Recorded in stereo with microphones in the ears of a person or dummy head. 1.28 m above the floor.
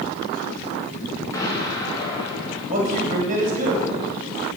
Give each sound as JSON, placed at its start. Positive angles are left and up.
{"t": 1.3, "sound": "an explosion", "side_deg": 10, "distance_m": 1.7}
{"t": 2.7, "sound": "a man speaking", "side_deg": -35, "distance_m": 2.0}